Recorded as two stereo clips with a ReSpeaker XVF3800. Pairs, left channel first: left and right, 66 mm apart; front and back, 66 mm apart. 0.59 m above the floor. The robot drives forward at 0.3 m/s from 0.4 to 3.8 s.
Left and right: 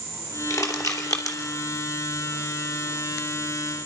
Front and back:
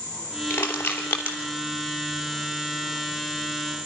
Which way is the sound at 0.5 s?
55° left.